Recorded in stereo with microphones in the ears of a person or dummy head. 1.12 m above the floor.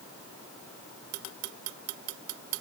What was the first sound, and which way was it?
Only background noise.